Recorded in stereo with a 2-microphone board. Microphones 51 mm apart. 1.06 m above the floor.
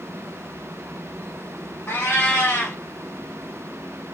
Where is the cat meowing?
50° left (ahead or behind), 1.4 m.